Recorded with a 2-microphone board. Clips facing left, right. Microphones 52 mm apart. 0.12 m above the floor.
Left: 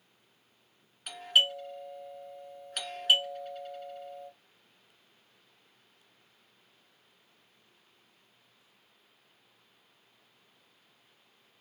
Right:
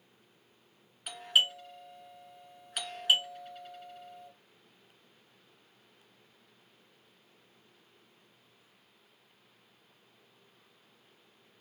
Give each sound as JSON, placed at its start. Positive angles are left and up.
{"t": 1.1, "sound": "a doorbell", "side_deg": -5, "distance_m": 1.5}